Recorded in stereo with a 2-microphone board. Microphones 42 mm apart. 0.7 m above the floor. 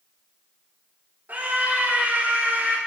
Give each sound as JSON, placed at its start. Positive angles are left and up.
{"t": 1.3, "sound": "a scream", "side_deg": -50, "distance_m": 2.5}